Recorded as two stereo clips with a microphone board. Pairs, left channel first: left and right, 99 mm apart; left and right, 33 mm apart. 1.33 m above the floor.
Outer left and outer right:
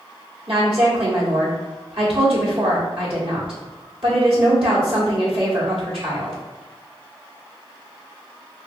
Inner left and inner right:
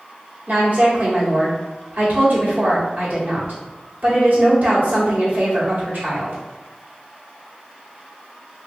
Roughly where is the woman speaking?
Right.